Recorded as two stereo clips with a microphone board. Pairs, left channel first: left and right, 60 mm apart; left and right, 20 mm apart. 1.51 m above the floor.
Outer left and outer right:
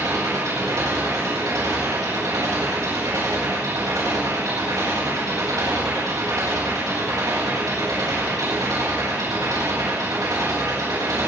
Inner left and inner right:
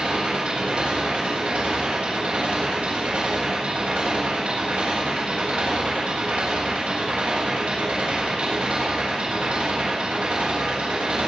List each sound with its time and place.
0.0 s an engine running: 80° right, 8.5 m